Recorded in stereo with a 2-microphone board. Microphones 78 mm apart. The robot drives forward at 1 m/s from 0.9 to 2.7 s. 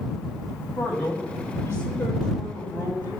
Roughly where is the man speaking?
Centre.